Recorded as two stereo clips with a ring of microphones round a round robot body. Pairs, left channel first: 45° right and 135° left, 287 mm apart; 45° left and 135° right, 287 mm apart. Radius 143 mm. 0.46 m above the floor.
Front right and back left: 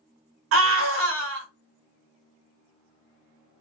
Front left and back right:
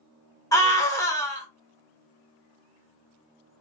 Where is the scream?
120° left, 1.2 m.